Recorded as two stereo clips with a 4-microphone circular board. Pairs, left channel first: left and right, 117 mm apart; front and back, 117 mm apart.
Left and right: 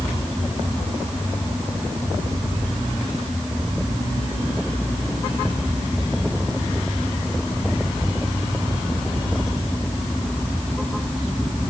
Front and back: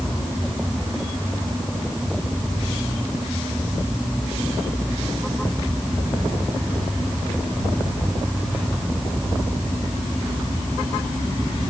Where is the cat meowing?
I don't hear a cat meowing.